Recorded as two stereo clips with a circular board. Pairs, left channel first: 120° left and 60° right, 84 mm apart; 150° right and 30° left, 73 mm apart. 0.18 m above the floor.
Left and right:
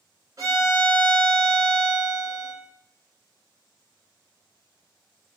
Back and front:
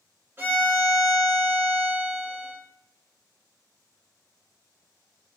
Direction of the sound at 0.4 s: 25° right.